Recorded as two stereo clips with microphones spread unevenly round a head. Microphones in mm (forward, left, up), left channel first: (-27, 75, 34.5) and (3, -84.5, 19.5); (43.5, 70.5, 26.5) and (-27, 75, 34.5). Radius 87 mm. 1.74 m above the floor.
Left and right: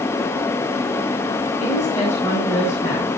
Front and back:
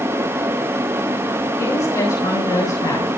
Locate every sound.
1.6 s a woman speaking: 25° left, 9 m